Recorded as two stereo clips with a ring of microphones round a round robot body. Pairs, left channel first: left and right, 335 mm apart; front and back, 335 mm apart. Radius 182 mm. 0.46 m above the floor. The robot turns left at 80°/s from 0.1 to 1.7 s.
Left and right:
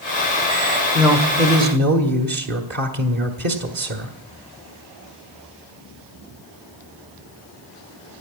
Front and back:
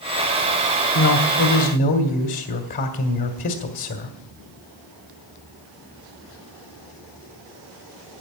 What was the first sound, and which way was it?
A man speaking, straight ahead.